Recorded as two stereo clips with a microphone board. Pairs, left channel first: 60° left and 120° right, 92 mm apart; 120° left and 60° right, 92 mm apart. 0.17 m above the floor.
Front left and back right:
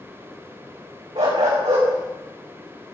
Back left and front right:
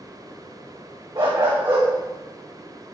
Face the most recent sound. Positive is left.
turn(degrees=-135)